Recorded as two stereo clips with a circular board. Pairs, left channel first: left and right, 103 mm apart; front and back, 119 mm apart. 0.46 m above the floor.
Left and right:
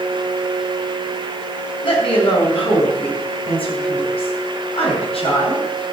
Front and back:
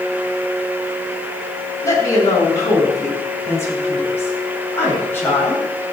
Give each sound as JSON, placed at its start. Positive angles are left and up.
{"t": 1.8, "sound": "a woman speaking", "azimuth_deg": 60, "distance_m": 5.0}